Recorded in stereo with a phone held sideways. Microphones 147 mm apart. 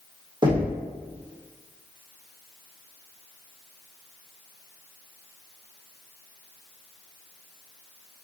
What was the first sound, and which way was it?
Knocking, 30° right (ahead or behind).